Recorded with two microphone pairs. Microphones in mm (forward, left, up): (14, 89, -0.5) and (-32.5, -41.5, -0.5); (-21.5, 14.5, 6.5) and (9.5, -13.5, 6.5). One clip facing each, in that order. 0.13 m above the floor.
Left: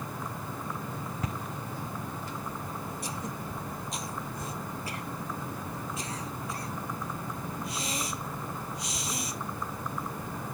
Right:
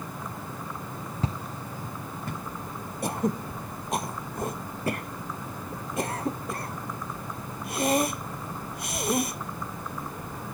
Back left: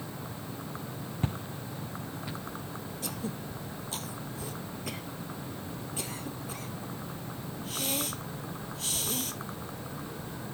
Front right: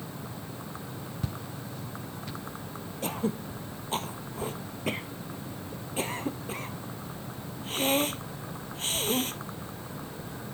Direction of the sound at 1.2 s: 170° right.